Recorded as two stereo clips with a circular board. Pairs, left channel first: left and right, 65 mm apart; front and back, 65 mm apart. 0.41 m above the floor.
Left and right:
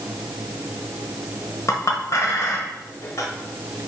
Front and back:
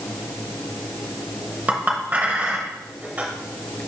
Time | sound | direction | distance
1.7 | a clink | 120° left | 1.0 m